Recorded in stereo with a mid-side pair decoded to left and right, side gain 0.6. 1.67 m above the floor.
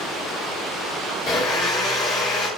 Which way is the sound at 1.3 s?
50° left.